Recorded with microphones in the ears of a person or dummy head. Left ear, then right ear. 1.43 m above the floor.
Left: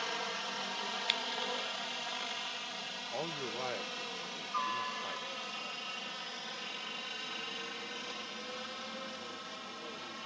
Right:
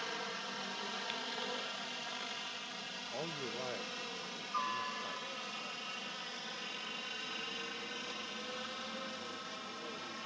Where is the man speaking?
35° left (ahead or behind).